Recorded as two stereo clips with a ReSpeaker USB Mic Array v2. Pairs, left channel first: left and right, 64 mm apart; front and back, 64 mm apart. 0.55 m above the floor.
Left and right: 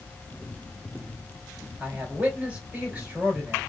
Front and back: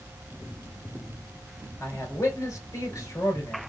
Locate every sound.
1.8 s a man speaking: 30° right, 2.5 m